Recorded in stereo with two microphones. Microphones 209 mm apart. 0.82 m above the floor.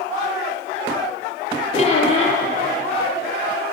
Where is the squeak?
30° left (ahead or behind), 3.5 m.